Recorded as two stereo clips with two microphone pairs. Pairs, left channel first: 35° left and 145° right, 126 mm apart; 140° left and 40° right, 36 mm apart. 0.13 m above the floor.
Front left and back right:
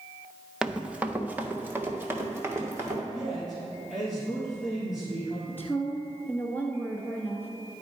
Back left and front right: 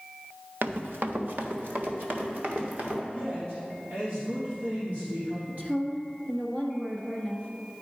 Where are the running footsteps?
60° right, 0.9 m; by 3.0 s 75° right, 2.5 m.